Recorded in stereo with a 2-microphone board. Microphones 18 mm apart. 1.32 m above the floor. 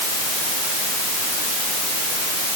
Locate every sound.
Only background noise.